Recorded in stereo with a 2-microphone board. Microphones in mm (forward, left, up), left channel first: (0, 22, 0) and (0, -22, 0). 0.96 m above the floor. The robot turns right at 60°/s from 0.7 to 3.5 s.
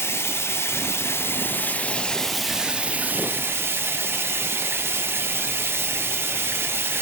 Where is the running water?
80° left, 0.8 m; by 7.0 s 115° right, 0.8 m.